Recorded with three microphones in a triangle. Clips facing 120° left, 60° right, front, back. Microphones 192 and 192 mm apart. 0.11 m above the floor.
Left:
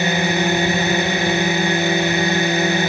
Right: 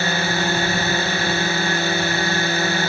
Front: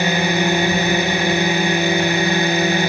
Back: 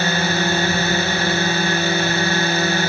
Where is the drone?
60° left.